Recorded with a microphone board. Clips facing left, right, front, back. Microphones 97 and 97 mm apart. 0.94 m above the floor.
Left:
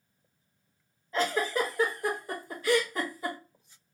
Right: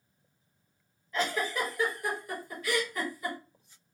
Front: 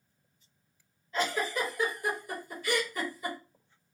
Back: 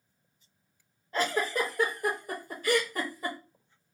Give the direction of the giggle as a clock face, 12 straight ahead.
7 o'clock.